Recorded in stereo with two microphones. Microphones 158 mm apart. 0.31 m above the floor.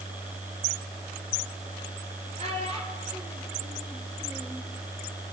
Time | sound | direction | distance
2.4 | a child speaking | 40° right (ahead or behind) | 5 m